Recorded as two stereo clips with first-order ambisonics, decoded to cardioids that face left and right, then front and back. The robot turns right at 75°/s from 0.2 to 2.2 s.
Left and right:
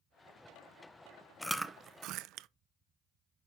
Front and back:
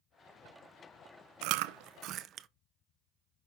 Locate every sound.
1.4 s chewing: 175° left, 0.6 m; by 2.5 s 125° right, 0.6 m